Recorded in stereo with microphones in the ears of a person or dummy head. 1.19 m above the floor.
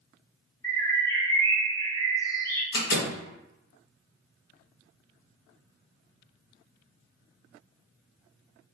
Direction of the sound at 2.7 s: 70° left (ahead or behind).